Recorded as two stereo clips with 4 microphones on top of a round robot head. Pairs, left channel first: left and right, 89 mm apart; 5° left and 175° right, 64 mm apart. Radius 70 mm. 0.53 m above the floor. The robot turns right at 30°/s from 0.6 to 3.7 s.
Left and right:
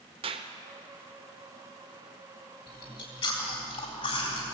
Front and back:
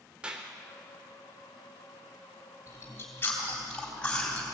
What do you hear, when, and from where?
0.2 s a clap: 100° right, 1.1 m
2.7 s chewing: 50° left, 3.5 m; by 4.5 s 80° left, 3.5 m